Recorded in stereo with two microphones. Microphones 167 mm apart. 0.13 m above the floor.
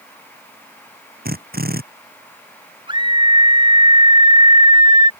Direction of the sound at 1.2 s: 65° right (ahead or behind).